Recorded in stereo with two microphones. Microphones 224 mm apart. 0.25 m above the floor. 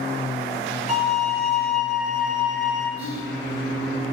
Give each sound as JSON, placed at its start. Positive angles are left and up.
{"t": 0.9, "sound": "a violin", "side_deg": -5, "distance_m": 1.7}
{"t": 3.0, "sound": "whispering", "side_deg": -10, "distance_m": 1.5}